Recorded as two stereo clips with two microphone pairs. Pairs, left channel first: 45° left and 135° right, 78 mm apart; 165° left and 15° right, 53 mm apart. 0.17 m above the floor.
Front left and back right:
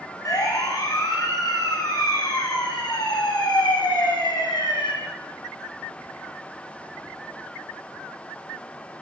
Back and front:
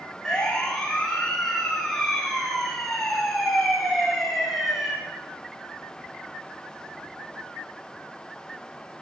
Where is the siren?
85° left, 7.5 m; by 4.9 s 65° left, 6.5 m.